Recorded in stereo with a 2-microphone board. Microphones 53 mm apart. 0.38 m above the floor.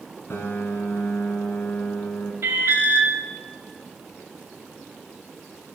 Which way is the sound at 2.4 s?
55° right (ahead or behind).